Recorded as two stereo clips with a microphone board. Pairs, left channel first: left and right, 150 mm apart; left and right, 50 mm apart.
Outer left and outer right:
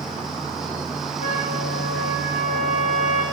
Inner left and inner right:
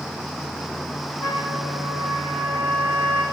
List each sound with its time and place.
1.2 s a trumpet: 70° left (ahead or behind), 7 m